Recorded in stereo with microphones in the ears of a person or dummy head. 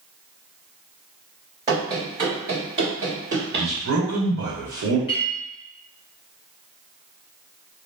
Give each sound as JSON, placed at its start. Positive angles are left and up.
{"t": 1.7, "sound": "running footsteps", "side_deg": -20, "distance_m": 1.5}
{"t": 3.5, "sound": "a man speaking", "side_deg": -80, "distance_m": 1.2}
{"t": 5.1, "sound": "a clink", "side_deg": 25, "distance_m": 0.8}